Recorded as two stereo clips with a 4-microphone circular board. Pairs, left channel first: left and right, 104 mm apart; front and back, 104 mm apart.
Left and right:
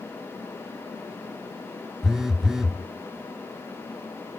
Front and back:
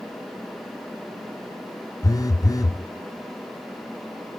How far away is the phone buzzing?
About 0.5 m.